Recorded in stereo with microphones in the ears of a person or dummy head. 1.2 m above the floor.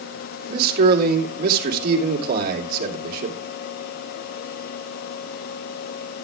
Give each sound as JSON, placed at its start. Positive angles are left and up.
{"t": 0.5, "sound": "a man speaking", "side_deg": -55, "distance_m": 2.5}